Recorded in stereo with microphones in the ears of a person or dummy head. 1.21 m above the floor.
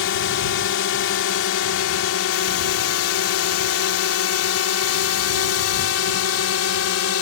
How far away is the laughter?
No laughter in this recording.